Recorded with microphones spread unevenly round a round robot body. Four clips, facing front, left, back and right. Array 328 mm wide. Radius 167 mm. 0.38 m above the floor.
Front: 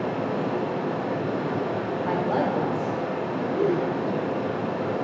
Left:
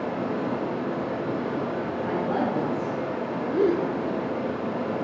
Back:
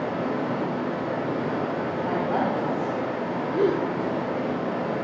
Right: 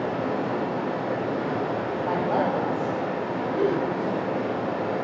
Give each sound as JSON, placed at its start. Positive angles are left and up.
{"t": 0.0, "sound": "running water", "azimuth_deg": -30, "distance_m": 1.7}
{"t": 2.0, "sound": "a woman speaking", "azimuth_deg": -20, "distance_m": 1.0}
{"t": 3.5, "sound": "a gasp", "azimuth_deg": 130, "distance_m": 0.6}